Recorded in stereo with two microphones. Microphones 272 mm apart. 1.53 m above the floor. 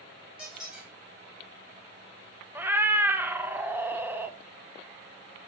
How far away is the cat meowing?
About 0.7 m.